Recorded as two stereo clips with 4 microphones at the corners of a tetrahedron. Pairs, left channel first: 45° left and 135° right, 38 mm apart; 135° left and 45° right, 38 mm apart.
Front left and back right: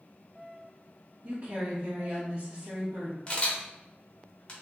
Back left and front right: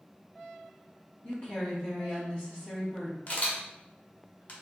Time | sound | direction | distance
1.2 | a woman speaking | straight behind | 0.9 m
3.3 | a camera shutter | 100° left | 0.9 m